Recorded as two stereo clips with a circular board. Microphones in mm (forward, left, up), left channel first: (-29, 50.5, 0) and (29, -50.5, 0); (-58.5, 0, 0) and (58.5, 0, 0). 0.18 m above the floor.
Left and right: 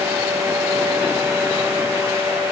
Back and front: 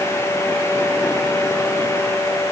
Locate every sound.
Only background noise.